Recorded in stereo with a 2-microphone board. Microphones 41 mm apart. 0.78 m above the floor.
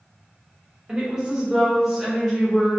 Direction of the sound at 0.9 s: 20° right (ahead or behind).